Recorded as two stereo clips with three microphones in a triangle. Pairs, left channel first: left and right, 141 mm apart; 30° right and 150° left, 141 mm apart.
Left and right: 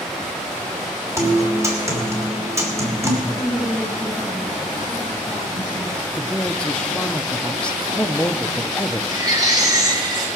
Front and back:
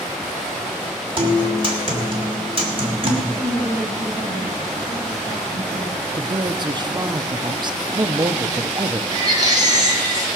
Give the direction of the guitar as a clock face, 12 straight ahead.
5 o'clock.